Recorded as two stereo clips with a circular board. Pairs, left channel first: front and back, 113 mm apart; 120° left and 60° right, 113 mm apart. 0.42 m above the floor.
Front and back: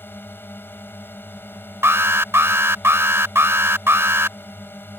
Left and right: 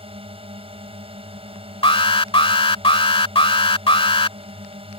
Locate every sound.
0.0 s a drone: 70° right
1.8 s an alarm: 120° left